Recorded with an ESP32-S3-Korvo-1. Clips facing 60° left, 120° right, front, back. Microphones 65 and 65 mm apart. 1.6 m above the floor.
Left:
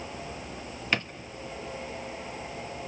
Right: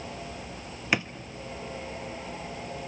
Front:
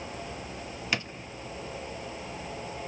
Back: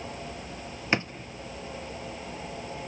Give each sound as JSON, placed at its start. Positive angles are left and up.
{"t": 0.9, "sound": "a drawer", "azimuth_deg": 175, "distance_m": 1.0}